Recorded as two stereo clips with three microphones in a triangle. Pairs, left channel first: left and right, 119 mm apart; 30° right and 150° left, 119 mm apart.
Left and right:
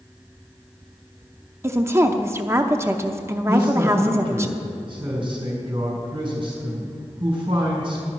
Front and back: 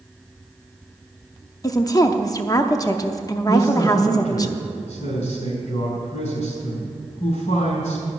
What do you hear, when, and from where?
1.6 s a woman speaking: 45° right, 0.6 m
3.5 s a man speaking: 40° right, 4 m